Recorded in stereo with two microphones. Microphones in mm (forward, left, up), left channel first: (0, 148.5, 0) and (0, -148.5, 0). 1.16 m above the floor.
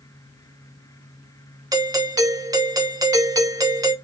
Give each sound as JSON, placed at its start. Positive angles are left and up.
{"t": 1.7, "sound": "a doorbell", "side_deg": -10, "distance_m": 1.4}